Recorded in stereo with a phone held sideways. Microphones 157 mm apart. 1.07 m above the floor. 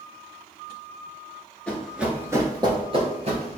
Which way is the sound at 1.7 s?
5° left (ahead or behind).